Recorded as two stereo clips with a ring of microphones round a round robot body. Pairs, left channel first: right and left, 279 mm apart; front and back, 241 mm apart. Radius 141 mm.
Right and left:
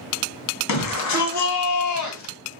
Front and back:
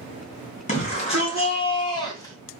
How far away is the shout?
About 2.5 m.